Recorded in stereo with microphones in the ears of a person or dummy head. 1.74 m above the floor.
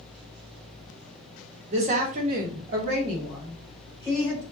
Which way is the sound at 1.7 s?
35° right (ahead or behind).